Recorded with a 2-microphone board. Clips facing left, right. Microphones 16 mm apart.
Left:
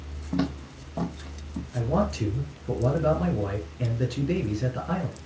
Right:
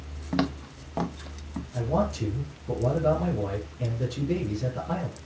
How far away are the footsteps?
About 1.4 m.